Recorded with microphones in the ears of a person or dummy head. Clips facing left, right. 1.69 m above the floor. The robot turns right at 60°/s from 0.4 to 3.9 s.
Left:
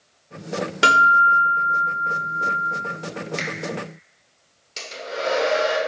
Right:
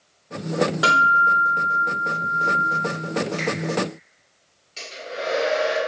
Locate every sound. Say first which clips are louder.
0.8 s a guitar: left 2 dB; 140° left, 0.8 m; by 2.8 s 100° right, 0.8 m
3.4 s a finger snap: right 6 dB; 20° left (ahead or behind), 0.8 m; by 3.5 s 30° left (ahead or behind), 0.8 m
4.8 s a hair dryer: left 2 dB; 60° left (ahead or behind), 0.9 m